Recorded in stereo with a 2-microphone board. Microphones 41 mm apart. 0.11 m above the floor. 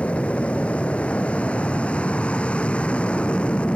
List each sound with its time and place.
0.0 s an aircraft: 30° left (ahead or behind)